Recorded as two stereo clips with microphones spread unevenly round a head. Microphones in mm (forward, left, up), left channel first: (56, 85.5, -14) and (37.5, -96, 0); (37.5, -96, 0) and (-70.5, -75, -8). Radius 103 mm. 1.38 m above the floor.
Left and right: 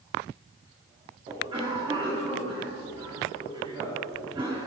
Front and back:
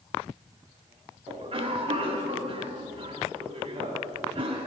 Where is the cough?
165° right, 4 m.